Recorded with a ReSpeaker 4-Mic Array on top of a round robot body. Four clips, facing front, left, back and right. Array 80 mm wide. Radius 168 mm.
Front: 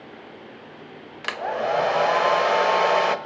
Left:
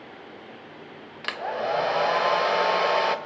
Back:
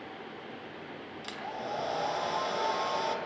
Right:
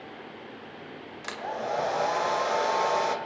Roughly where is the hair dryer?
Ahead left.